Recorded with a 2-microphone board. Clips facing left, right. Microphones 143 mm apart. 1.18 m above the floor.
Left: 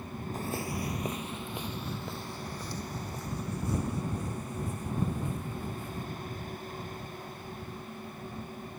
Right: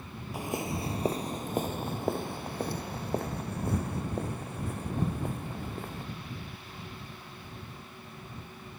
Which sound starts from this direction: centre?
Footsteps, at 0.3 s.